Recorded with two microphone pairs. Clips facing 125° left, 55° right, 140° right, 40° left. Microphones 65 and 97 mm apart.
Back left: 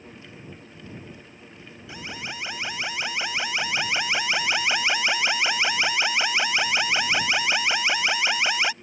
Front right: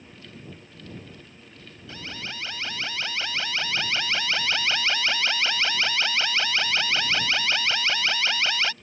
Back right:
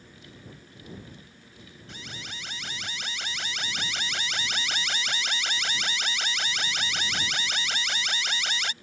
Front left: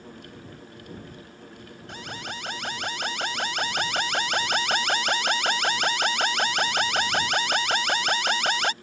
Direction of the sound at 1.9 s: 55° left.